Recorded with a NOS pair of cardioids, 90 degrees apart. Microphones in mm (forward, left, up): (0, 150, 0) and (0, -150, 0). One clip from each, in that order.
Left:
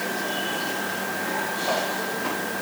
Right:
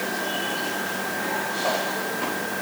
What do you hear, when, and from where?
Only background noise.